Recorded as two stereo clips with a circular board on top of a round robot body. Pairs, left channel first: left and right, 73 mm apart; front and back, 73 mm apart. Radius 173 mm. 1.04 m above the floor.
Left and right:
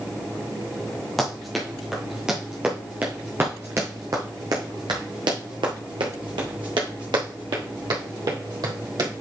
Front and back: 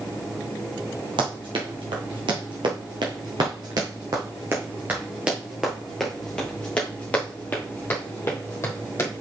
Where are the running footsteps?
Straight behind, 2 m; by 9.1 s 55° right, 3 m.